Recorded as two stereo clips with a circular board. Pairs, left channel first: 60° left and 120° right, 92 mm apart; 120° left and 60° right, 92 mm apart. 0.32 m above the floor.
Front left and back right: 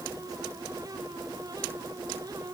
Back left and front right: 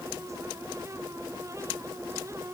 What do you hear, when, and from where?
Only background noise.